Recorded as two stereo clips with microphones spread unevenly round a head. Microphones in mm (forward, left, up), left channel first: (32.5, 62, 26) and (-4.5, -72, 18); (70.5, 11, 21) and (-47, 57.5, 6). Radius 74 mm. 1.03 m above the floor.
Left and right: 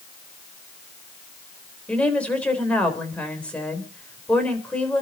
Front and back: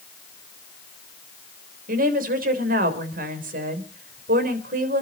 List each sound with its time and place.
1.9 s a woman speaking: 155° left, 3.5 m